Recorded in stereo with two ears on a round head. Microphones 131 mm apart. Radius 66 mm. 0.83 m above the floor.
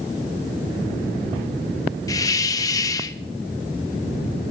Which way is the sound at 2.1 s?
25° left (ahead or behind).